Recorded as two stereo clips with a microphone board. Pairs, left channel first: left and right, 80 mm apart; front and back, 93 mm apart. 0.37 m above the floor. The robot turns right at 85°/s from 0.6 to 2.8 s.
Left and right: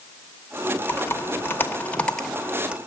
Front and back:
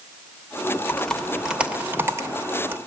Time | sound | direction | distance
0.9 | typing on a keyboard | 55° left | 0.9 m